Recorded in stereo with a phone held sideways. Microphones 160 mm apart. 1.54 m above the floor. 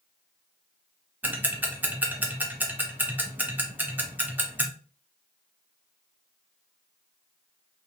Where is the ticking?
10° right (ahead or behind), 0.6 m.